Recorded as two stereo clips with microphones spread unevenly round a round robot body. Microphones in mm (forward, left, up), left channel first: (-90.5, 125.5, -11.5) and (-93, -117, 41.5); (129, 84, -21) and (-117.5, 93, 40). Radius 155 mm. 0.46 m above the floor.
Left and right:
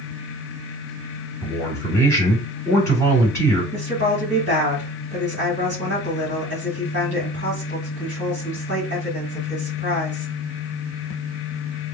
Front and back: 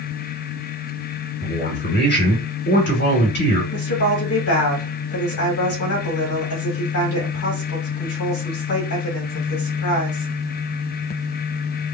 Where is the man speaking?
20° left, 2 m.